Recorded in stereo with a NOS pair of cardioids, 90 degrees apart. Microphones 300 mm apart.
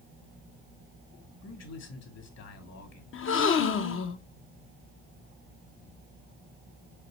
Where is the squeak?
I don't hear a squeak.